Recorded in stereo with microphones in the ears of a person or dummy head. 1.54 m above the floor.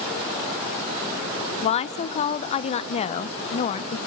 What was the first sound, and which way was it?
A woman speaking, 35° left (ahead or behind).